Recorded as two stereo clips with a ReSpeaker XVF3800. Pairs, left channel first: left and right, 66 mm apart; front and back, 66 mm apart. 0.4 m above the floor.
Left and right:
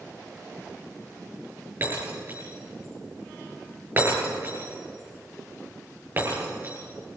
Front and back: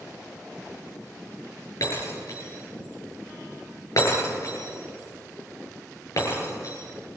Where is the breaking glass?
35° right, 9 m.